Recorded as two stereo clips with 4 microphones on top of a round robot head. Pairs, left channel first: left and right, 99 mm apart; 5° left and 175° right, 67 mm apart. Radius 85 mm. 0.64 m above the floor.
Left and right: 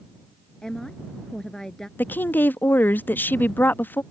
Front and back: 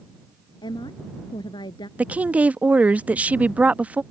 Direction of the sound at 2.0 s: 135° left.